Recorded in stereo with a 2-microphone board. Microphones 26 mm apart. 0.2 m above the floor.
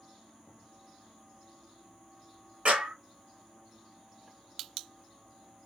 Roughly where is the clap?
Right.